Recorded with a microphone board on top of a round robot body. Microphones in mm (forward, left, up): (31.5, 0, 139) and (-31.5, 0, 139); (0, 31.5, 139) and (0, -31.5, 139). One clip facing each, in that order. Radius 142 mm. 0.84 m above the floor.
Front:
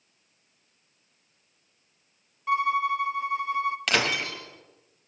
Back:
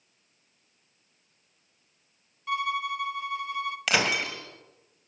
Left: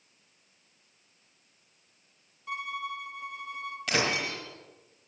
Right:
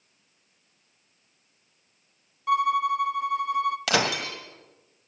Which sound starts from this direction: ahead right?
A violin, at 2.5 s.